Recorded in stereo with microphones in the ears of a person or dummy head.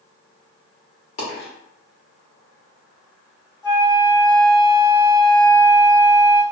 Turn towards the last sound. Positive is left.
turn(degrees=20)  # may be behind; listen again after turning